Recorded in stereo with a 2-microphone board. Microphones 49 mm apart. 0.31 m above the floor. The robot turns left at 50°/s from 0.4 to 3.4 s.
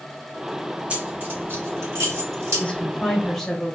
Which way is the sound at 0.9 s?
25° right (ahead or behind).